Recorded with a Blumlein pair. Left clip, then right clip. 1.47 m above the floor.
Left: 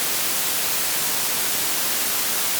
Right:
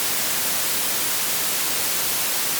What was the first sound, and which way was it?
Only background noise.